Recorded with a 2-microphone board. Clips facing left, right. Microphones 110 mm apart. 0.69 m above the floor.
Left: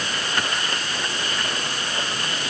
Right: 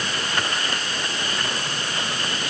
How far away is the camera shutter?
No camera shutter in this recording.